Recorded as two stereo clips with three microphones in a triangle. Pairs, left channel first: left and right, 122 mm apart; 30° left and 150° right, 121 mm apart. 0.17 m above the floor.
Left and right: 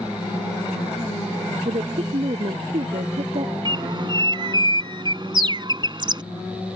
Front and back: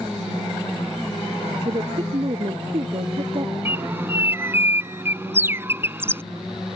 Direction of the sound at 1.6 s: 110° right.